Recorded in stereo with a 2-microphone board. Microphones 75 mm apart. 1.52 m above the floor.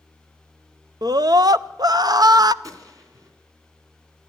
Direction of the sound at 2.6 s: 50° right (ahead or behind).